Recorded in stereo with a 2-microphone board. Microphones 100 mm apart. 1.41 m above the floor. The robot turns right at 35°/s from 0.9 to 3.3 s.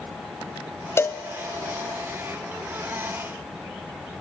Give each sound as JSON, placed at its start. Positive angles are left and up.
{"t": 1.0, "sound": "a cowbell", "side_deg": 25, "distance_m": 0.5}